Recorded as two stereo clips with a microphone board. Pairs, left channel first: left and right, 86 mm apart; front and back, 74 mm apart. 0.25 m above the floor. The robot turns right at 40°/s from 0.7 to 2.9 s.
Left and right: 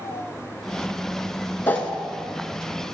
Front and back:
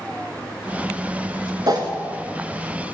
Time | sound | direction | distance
1.7 | a whoosh | 155° left | 0.7 m